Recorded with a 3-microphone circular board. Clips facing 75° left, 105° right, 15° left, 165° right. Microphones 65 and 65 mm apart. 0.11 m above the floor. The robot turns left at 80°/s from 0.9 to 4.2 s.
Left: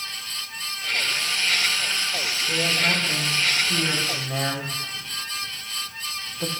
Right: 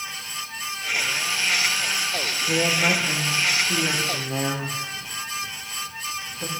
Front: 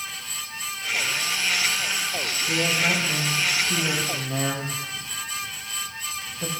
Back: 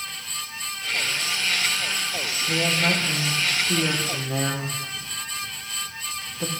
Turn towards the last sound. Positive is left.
turn(degrees=150)